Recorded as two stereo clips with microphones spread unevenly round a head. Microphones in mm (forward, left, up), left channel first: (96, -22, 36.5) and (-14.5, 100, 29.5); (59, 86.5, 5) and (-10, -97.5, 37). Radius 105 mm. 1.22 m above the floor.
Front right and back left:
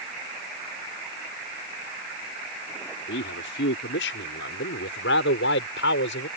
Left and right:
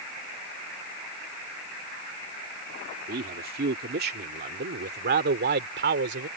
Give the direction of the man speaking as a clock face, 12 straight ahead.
2 o'clock.